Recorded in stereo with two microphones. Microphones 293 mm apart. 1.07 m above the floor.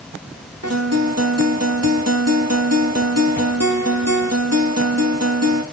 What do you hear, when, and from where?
0.6 s a guitar: 60° right (ahead or behind), 2.0 m